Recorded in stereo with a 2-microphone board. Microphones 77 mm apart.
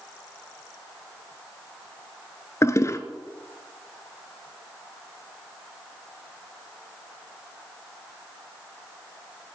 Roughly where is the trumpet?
No trumpet in this recording.